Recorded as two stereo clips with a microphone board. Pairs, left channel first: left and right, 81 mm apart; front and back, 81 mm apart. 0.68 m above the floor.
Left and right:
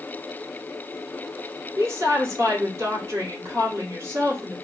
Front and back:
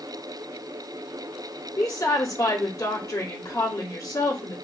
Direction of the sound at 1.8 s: 40° right.